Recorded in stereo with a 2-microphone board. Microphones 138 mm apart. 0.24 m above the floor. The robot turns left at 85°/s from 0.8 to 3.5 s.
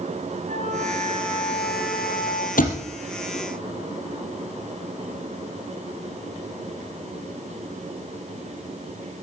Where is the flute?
95° right, 3.5 m; by 2.5 s 125° left, 3.5 m.